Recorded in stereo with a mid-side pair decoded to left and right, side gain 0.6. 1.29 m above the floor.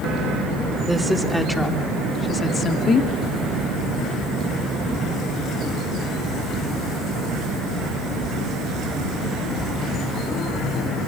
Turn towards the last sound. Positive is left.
turn(degrees=45)